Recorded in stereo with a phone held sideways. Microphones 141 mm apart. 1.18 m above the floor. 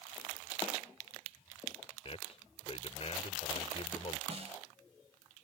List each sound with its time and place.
2.0 s a man speaking: 45° left (ahead or behind)
4.3 s a snare drum: 50° right (ahead or behind)